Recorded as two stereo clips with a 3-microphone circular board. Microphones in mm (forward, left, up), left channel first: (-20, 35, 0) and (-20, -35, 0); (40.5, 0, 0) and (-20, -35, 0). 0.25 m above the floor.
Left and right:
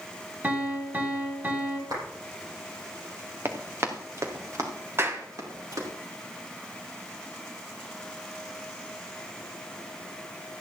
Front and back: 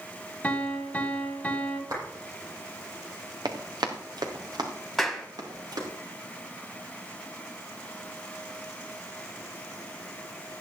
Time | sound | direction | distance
0.4 | a piano | 35° right | 2.0 m
1.9 | a clap | 115° right | 7.5 m
3.5 | running footsteps | 145° right | 2.5 m
5.0 | a clap | 60° right | 1.6 m